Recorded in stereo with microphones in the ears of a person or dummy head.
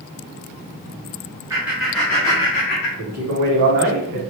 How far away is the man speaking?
About 0.9 m.